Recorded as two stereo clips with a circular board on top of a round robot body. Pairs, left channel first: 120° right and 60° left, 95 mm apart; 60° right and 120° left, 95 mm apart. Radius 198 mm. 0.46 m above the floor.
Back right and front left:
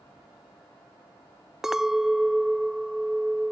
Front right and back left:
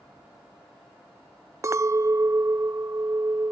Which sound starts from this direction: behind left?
A clink, at 1.6 s.